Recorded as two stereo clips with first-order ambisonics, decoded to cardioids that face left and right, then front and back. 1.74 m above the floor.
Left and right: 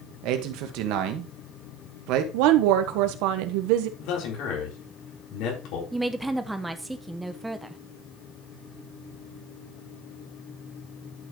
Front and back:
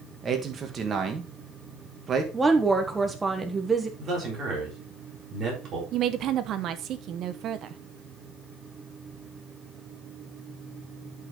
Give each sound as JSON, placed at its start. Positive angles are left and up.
{"t": 0.2, "sound": "a man speaking", "azimuth_deg": -115, "distance_m": 1.7}
{"t": 2.3, "sound": "a woman speaking", "azimuth_deg": -100, "distance_m": 1.3}
{"t": 4.0, "sound": "a man speaking", "azimuth_deg": 120, "distance_m": 4.0}
{"t": 5.9, "sound": "a woman speaking", "azimuth_deg": -170, "distance_m": 0.8}